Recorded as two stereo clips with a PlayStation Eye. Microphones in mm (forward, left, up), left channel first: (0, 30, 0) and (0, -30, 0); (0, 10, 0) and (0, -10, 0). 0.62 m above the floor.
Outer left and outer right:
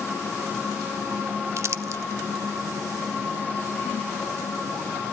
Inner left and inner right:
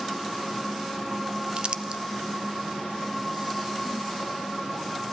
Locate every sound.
1.6 s crumpling: 50° right (ahead or behind), 0.6 m